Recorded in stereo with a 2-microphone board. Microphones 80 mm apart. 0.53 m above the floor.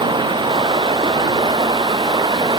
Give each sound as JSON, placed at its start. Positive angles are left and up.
{"t": 0.0, "sound": "running water", "side_deg": -90}